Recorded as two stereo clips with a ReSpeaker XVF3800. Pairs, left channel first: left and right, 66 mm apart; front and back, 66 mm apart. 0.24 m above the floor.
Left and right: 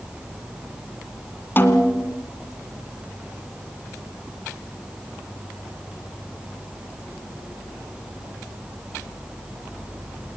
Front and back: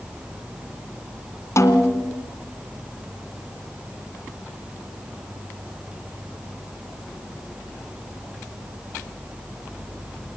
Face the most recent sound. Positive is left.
turn(degrees=35)